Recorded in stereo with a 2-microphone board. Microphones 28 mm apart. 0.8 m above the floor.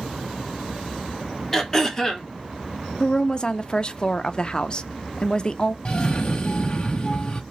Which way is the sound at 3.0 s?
30° left (ahead or behind).